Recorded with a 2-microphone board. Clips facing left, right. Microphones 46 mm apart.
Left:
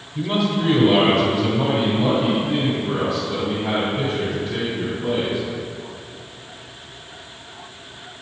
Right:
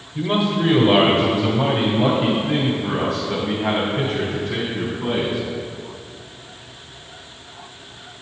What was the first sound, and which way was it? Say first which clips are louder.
A man speaking: right 1 dB; 15° right (ahead or behind).